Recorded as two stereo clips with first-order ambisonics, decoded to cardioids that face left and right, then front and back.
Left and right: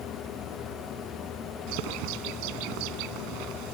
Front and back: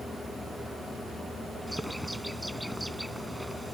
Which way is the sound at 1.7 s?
90° right.